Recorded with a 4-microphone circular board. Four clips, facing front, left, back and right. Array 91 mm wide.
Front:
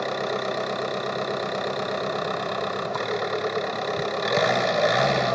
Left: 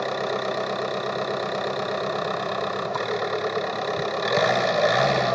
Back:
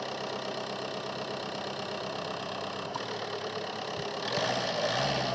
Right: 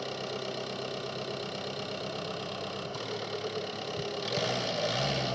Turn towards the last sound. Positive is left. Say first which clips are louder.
# left 11 dB, front 9 dB
turn(degrees=45)